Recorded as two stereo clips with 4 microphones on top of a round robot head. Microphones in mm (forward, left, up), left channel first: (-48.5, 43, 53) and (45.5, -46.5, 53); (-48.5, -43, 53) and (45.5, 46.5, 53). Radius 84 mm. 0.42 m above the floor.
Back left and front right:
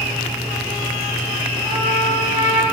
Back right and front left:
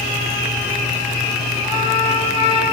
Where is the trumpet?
175° left, 4 m.